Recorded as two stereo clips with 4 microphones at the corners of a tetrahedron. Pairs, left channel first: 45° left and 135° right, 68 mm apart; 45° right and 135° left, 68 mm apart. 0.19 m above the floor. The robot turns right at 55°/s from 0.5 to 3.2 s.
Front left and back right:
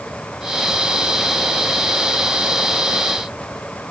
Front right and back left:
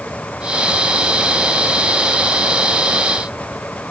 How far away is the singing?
I don't hear singing.